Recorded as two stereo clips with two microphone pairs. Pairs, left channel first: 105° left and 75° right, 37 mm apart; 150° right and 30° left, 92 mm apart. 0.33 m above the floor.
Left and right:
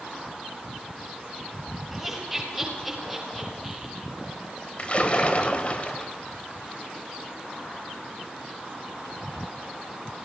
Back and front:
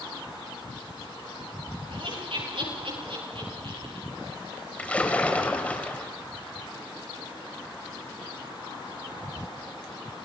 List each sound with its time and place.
1.9 s laughter: 15° left, 9.5 m; by 4.0 s 20° left, 7.5 m
4.8 s a splash: 140° left, 1.8 m